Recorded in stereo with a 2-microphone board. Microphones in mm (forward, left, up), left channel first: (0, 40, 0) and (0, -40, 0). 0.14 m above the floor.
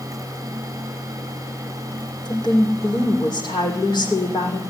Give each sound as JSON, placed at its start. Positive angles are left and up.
{"t": 2.2, "sound": "a woman speaking", "side_deg": 70, "distance_m": 6.5}